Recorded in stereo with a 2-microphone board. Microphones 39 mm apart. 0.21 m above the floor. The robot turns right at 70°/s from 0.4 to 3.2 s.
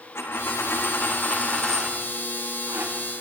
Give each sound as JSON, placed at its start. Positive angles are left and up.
{"t": 0.1, "sound": "a dropped coin", "azimuth_deg": 75, "distance_m": 5.0}